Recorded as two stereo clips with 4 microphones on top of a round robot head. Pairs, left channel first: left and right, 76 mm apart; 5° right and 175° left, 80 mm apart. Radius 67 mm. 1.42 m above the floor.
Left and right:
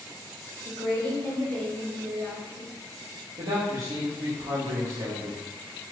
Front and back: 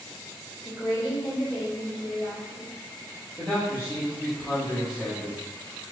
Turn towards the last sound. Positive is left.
turn(degrees=-85)